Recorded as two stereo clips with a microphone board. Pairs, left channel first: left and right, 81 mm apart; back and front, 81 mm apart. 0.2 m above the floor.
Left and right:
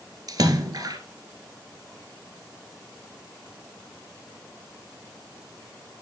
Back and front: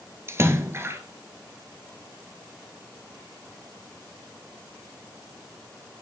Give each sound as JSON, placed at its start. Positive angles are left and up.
{"t": 0.3, "sound": "a splash", "azimuth_deg": -55, "distance_m": 1.1}